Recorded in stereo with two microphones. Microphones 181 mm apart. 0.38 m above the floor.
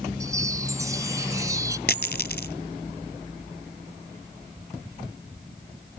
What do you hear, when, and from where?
0.2 s a chime: 20° right (ahead or behind)
1.9 s a dropped coin: 60° left (ahead or behind)